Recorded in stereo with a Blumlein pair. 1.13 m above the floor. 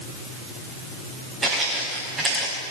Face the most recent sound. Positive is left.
turn(degrees=-15)